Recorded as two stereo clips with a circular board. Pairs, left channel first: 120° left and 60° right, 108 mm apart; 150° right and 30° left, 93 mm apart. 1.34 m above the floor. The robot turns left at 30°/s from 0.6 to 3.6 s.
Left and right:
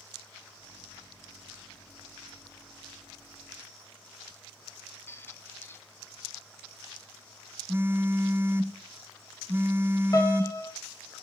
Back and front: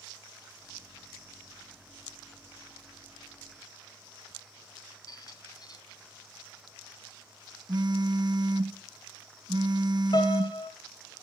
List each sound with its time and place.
5.1 s a squeak: 175° right, 1.1 m
7.7 s a phone buzzing: 5° left, 0.8 m
10.1 s a piano: 175° left, 1.7 m